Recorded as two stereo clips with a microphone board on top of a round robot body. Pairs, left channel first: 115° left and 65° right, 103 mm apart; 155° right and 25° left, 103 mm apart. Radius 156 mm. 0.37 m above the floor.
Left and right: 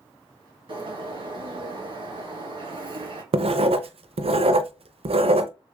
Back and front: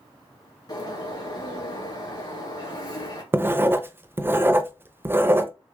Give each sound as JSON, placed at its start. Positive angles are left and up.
{"t": 0.7, "sound": "a bird", "azimuth_deg": -105, "distance_m": 2.5}
{"t": 3.3, "sound": "writing", "azimuth_deg": -45, "distance_m": 0.6}